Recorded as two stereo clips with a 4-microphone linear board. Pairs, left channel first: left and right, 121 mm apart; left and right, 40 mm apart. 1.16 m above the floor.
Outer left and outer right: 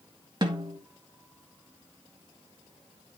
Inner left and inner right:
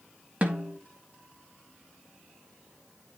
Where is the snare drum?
35° right (ahead or behind), 2 m.